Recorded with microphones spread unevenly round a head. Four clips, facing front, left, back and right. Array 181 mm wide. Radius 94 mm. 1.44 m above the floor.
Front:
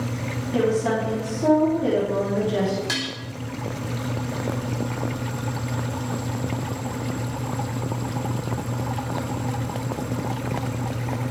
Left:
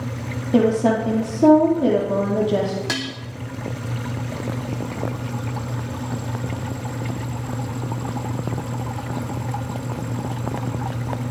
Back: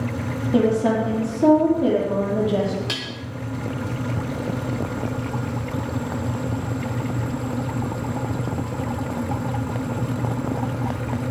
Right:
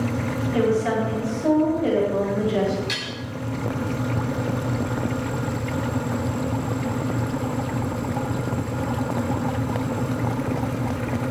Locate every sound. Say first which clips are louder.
0.5 s a woman speaking: left 5 dB, back 3 dB; 115° left, 3.5 m
2.9 s dishes clattering: left 4 dB, front 2 dB; 95° left, 2.5 m